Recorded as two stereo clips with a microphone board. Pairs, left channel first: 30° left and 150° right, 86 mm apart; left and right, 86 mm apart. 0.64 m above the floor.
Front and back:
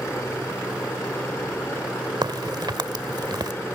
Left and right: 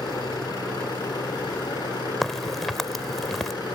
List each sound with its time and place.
0.0 s a helicopter: 85° left
2.2 s a crack: straight behind